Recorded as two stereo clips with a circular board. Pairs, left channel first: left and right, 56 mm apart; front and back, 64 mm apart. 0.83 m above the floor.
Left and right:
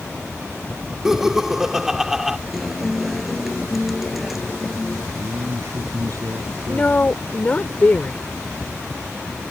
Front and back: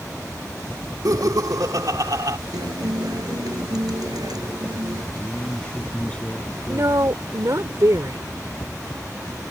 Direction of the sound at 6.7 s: 150° left.